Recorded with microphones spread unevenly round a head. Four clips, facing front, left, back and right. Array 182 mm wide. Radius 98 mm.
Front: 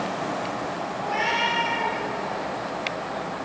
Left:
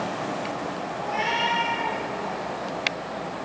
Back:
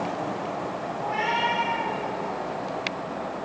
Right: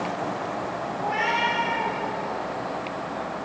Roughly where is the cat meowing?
Right.